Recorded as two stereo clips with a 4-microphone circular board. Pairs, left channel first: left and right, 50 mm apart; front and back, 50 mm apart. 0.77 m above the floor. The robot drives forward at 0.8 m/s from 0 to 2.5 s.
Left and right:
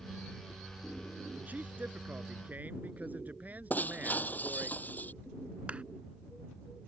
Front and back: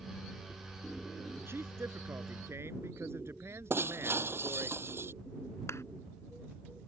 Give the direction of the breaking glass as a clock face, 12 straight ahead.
7 o'clock.